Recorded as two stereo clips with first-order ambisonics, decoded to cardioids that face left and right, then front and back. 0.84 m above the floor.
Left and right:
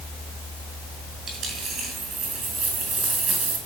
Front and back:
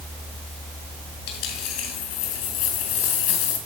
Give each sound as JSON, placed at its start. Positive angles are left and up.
{"t": 1.3, "sound": "a dropped coin", "azimuth_deg": -25, "distance_m": 4.5}